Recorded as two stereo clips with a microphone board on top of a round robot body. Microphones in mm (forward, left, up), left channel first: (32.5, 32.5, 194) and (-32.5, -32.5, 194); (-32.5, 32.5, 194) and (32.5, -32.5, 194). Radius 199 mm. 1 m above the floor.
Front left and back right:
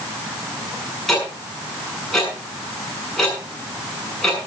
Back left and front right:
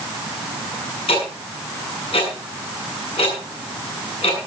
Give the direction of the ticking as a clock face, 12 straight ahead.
8 o'clock.